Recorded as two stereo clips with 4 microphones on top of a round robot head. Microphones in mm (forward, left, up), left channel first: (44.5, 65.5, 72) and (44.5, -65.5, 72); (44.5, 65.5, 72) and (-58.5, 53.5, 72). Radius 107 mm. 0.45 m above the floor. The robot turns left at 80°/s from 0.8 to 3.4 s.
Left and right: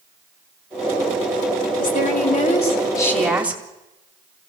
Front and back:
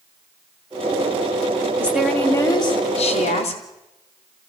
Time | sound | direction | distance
1.8 | a woman speaking | 120° left | 4 m